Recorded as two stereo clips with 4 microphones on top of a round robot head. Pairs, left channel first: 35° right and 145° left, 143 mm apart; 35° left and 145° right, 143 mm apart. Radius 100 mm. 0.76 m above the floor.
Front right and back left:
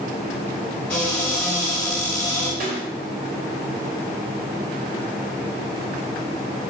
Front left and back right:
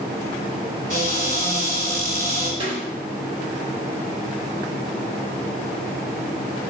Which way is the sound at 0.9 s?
115° right.